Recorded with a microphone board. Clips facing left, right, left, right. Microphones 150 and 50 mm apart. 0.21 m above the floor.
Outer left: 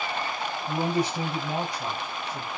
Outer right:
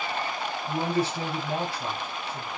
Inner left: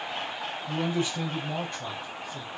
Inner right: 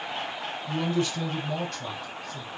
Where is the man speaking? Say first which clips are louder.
Outer left 1 dB, inner right 2 dB; 15° left (ahead or behind), 1.0 m.